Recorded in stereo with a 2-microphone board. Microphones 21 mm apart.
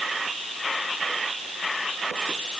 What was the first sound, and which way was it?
Only background noise.